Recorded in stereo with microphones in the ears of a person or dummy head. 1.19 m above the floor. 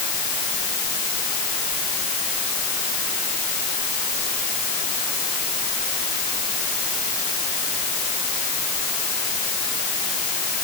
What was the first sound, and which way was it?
Only background noise.